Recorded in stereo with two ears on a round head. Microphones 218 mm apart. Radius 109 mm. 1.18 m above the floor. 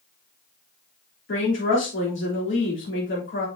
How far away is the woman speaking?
About 3.5 m.